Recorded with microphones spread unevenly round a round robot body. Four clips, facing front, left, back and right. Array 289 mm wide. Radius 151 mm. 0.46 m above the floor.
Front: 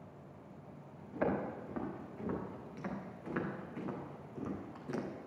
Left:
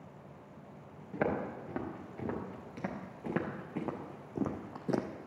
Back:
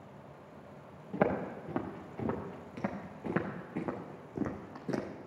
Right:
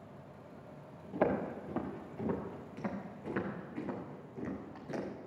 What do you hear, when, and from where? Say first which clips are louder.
1.1 s footsteps: right 1 dB, back 4 dB; 170° left, 3.5 m; by 5.1 s 115° left, 1.3 m